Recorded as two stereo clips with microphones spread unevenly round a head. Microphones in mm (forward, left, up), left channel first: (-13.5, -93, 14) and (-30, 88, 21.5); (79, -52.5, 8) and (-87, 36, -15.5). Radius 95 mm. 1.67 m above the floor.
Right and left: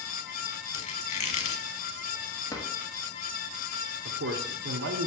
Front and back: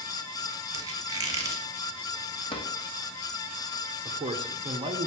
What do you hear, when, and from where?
0.7 s a squeak: 135° right, 1.4 m
2.5 s a drawer: 25° right, 1.0 m
4.0 s a man speaking: 85° left, 0.9 m